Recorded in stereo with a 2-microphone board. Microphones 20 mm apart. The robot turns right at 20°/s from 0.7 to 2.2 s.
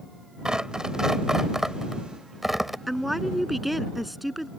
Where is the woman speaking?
5° right (ahead or behind).